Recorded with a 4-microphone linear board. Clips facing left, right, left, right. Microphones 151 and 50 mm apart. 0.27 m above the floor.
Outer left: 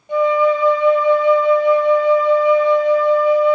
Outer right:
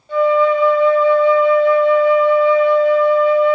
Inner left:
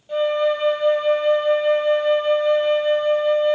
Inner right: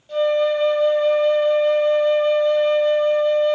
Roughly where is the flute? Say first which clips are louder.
Outer right 1 dB, inner right 1 dB; centre.